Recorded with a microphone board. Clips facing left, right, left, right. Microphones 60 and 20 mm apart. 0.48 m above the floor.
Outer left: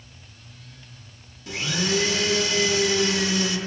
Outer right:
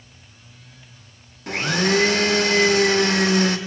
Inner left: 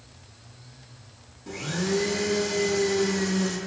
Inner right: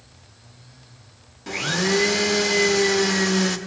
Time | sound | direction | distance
1.5 | a blender | 50° right (ahead or behind) | 0.6 m